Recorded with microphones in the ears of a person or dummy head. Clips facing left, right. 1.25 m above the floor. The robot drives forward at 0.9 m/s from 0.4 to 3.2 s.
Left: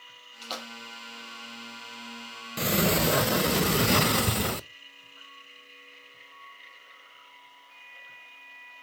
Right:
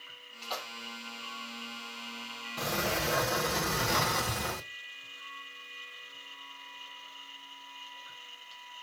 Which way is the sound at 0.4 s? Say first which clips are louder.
Left 1 dB; 40° left (ahead or behind).